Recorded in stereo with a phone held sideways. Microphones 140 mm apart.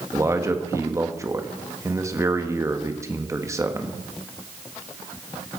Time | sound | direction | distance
0.1 | a man speaking | 20° right (ahead or behind) | 1.5 m